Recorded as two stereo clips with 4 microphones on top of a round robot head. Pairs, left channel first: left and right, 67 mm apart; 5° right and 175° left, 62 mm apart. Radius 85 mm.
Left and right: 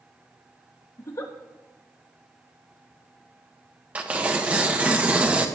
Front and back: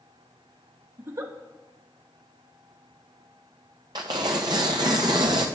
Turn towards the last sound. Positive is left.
turn(degrees=-155)